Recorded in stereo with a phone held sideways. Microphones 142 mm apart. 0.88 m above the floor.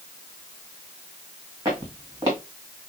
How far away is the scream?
No scream in this recording.